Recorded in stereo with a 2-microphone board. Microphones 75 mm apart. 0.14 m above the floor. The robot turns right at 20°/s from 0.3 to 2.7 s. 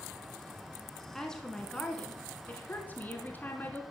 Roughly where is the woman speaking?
Ahead.